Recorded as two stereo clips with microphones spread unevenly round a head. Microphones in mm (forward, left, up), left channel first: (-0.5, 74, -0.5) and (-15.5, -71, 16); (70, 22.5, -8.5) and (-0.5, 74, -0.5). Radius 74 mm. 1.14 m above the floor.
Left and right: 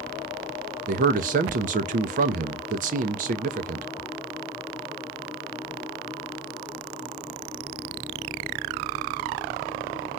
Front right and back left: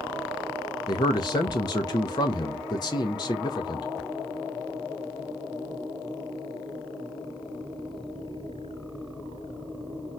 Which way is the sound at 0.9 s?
65° right.